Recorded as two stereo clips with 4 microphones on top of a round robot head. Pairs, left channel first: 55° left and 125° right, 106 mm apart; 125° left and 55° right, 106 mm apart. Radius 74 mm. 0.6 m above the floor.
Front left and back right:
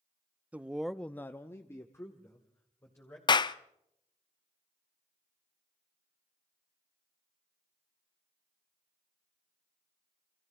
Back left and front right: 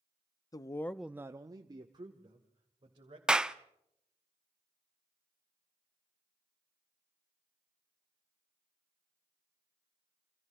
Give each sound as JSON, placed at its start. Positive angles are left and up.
{"t": 0.5, "sound": "a man speaking", "azimuth_deg": 165, "distance_m": 0.7}
{"t": 3.3, "sound": "a clap", "azimuth_deg": 25, "distance_m": 0.6}